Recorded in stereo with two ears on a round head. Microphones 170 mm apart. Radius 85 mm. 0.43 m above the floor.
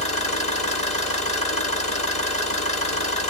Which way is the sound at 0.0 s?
35° left (ahead or behind).